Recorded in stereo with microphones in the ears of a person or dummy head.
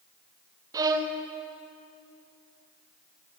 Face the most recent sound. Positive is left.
turn(degrees=-20)  # may be behind; listen again after turning